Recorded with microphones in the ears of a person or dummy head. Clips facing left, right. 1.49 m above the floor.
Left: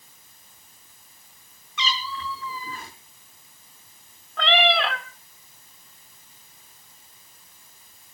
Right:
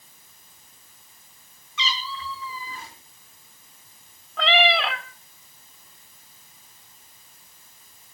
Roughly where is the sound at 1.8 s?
Left.